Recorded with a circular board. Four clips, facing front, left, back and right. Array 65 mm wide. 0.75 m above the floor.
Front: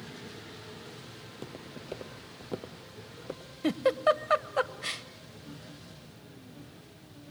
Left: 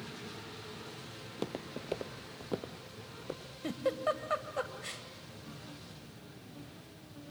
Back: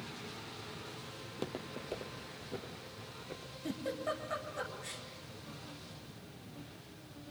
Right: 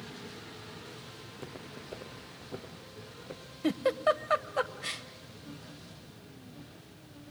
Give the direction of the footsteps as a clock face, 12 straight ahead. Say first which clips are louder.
Left 8 dB, back 4 dB; 8 o'clock.